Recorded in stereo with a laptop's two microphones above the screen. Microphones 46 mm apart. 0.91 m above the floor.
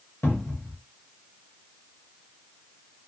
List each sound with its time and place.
0.2 s a cupboard door: 60° left (ahead or behind), 1.0 m